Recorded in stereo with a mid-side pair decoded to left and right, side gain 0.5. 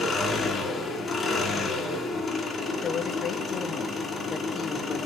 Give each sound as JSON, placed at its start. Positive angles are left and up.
{"t": 0.0, "sound": "an engine running", "azimuth_deg": 35, "distance_m": 3.0}
{"t": 2.8, "sound": "a woman speaking", "azimuth_deg": 45, "distance_m": 2.0}